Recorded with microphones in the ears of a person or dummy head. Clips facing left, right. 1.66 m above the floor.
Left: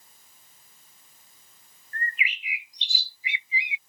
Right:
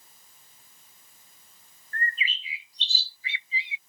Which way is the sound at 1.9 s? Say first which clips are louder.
Even; 20° left (ahead or behind).